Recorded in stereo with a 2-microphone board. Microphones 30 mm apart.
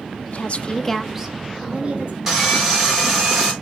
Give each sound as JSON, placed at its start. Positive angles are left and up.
{"t": 0.3, "sound": "a woman speaking", "side_deg": 50, "distance_m": 0.9}
{"t": 2.3, "sound": "sawing", "side_deg": -15, "distance_m": 3.5}